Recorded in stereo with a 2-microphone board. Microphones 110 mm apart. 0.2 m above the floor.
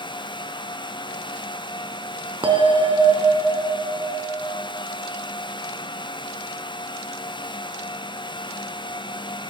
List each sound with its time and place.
2.4 s a bell: 50° right (ahead or behind), 0.8 m